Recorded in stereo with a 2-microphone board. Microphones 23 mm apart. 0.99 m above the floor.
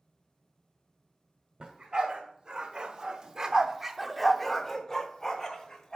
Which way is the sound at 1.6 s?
40° right (ahead or behind).